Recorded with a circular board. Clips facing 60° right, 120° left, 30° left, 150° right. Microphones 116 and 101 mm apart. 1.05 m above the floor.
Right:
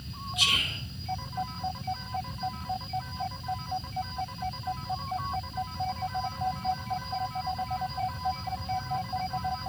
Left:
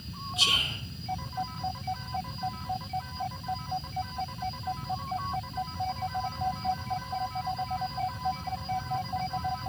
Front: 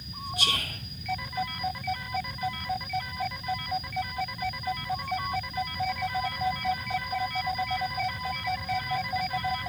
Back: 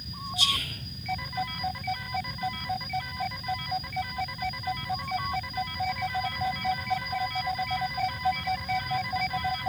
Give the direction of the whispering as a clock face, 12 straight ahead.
10 o'clock.